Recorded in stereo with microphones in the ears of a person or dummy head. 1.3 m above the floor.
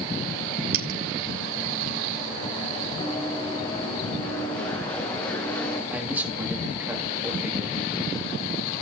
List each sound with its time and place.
0.7 s a dropped coin: 75° right (ahead or behind), 3.5 m
3.0 s running footsteps: 20° left (ahead or behind), 4.5 m; by 5.8 s 15° left (ahead or behind), 7 m
5.9 s a man speaking: 10° right (ahead or behind), 2.5 m